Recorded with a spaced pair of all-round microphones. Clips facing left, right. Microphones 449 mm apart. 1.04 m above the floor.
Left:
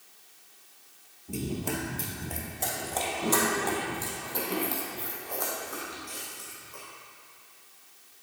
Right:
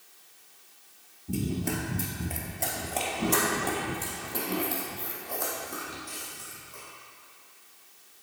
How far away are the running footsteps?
About 1.3 m.